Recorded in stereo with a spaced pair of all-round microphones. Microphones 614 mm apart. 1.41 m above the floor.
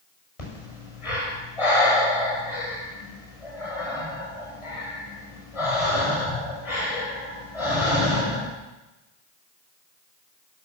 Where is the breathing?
60° left (ahead or behind), 6.5 m.